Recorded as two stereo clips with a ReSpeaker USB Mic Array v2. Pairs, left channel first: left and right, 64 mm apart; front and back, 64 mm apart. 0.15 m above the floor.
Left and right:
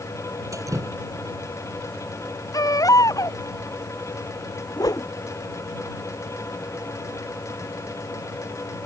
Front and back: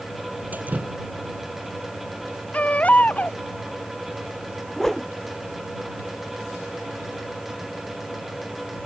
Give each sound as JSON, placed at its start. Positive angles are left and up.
{"t": 0.5, "sound": "dripping", "azimuth_deg": -120}
{"t": 2.5, "sound": "a baby crying", "azimuth_deg": 70}
{"t": 4.8, "sound": "a whoosh", "azimuth_deg": 85}